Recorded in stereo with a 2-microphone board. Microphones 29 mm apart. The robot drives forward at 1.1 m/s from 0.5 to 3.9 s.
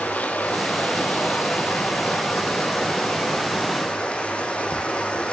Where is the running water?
75° left (ahead or behind), 3 m; by 5.3 s 40° left (ahead or behind), 4.5 m.